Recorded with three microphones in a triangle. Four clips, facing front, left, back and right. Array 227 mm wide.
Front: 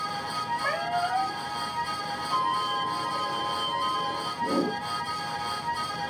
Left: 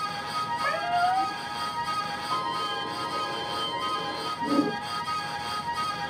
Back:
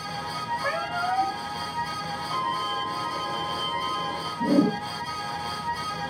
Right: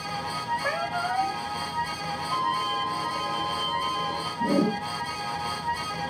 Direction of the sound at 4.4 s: 165° right.